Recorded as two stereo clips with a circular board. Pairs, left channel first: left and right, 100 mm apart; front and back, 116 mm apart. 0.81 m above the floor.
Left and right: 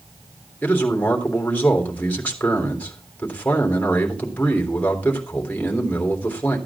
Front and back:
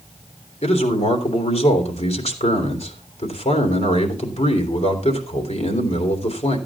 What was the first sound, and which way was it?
A man speaking, 15° left.